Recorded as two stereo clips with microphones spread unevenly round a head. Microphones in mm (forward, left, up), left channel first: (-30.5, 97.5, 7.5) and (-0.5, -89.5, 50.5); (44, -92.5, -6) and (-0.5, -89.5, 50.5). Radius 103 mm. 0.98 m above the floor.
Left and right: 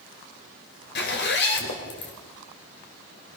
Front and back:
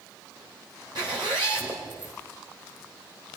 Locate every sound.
0.9 s a zipper: 130° left, 4.5 m